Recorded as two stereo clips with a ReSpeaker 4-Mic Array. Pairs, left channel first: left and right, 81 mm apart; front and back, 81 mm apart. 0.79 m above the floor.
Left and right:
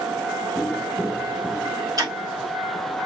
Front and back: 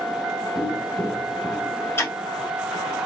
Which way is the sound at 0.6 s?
Straight ahead.